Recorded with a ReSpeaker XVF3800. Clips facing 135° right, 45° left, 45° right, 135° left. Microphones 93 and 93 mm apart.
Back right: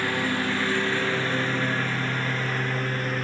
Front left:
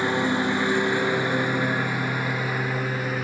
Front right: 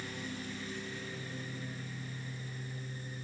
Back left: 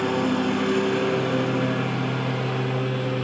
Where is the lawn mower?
115° left; by 3.2 s 130° left.